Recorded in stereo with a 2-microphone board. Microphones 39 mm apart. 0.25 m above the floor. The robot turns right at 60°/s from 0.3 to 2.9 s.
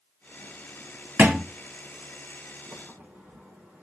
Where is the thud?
55° right (ahead or behind), 0.9 m; by 1.4 s 50° right (ahead or behind), 0.9 m.